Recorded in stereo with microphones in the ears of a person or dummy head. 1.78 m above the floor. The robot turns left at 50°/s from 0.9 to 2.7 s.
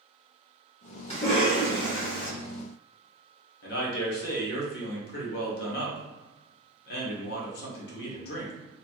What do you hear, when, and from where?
1.1 s a cough: 150° left, 1.3 m; by 2.3 s 90° left, 1.3 m
3.6 s a man speaking: 65° left (ahead or behind), 1.2 m